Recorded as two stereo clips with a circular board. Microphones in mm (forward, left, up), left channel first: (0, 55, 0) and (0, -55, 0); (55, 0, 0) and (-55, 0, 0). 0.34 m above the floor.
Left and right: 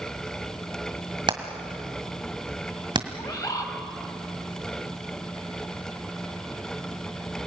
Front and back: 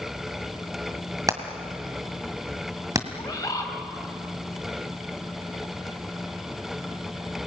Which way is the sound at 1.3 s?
125° right.